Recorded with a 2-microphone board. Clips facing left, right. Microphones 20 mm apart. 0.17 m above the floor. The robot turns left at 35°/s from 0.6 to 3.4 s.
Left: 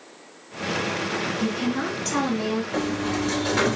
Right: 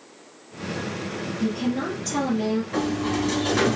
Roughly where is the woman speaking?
Left.